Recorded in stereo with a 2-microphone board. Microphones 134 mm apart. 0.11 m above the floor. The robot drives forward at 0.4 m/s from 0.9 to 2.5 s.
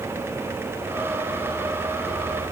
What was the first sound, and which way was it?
Only background noise.